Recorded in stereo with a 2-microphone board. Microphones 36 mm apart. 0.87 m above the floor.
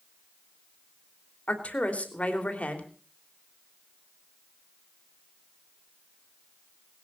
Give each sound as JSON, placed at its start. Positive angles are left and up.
{"t": 1.5, "sound": "a woman speaking", "side_deg": 45, "distance_m": 3.0}